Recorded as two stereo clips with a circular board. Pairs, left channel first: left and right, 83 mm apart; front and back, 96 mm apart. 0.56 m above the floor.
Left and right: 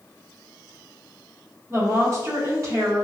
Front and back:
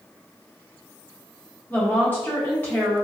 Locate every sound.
1.7 s a woman speaking: 60° right, 1.4 m